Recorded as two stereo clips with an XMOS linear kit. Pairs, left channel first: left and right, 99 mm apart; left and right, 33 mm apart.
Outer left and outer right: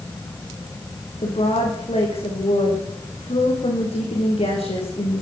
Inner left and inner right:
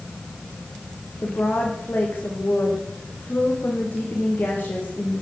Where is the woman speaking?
80° left, 10 m.